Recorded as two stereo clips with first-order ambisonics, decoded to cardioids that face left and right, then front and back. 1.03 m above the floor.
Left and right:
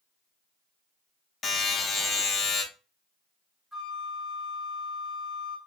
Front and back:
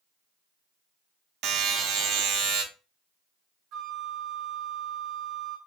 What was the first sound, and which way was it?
A buzzer, 155° left.